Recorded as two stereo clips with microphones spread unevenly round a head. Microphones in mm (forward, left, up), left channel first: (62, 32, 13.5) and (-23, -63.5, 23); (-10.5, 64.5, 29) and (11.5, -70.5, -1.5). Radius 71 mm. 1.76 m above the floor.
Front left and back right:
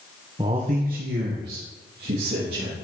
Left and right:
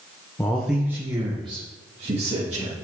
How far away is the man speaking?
About 1.1 m.